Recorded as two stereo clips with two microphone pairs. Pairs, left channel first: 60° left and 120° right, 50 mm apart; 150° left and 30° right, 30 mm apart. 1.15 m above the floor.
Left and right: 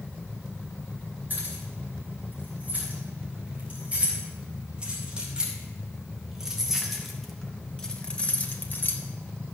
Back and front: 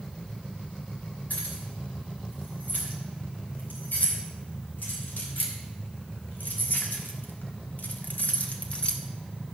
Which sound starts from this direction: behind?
Keys jangling, at 1.3 s.